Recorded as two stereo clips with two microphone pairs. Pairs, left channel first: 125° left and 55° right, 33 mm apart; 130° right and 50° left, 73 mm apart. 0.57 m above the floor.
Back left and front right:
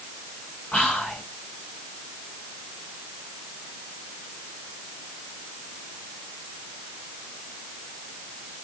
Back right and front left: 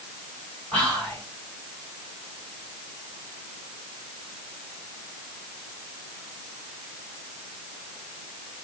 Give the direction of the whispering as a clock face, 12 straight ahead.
7 o'clock.